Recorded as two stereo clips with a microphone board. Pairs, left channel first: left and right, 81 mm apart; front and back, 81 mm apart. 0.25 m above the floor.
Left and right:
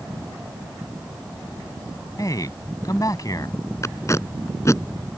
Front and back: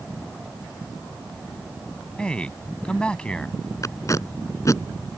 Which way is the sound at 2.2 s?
75° left.